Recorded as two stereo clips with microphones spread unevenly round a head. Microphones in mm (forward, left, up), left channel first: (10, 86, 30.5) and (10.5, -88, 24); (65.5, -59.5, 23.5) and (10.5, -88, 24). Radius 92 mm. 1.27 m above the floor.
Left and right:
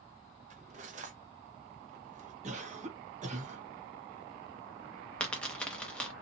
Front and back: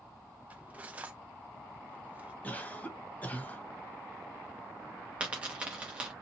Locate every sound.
0.5 s cutlery clinking: 105° right, 0.5 m
2.4 s a cough: 40° right, 1.3 m
5.2 s a dropped coin: 160° left, 0.6 m